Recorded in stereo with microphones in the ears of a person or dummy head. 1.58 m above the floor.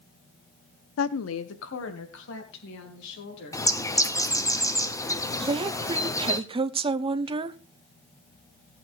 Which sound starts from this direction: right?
A woman speaking, at 5.4 s.